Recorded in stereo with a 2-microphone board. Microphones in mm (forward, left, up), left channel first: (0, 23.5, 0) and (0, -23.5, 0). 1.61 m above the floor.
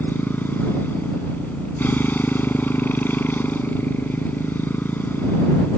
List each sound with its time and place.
0.0 s a motorcycle: 45° left (ahead or behind)